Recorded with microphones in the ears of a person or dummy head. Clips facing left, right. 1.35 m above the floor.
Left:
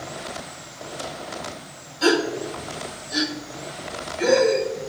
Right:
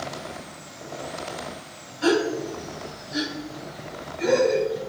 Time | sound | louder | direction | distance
2.0 | a gasp | left 1 dB | 70° left (ahead or behind) | 1.6 m